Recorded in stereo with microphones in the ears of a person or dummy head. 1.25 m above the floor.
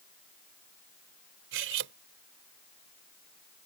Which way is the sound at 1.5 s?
75° right (ahead or behind).